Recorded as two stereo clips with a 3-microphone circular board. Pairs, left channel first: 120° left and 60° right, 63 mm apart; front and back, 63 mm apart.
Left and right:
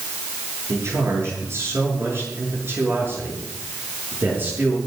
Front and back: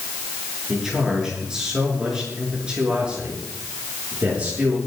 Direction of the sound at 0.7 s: 100° right.